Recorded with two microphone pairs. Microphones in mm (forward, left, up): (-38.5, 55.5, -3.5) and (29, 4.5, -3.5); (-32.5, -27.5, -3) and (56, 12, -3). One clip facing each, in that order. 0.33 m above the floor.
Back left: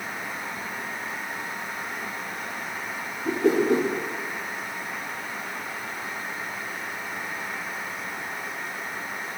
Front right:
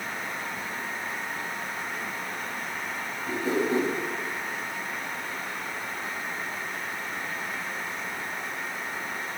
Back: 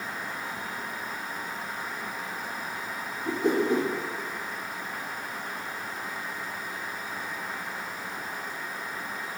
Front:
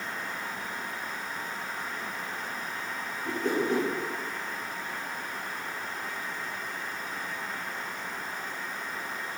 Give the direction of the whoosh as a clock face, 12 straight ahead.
8 o'clock.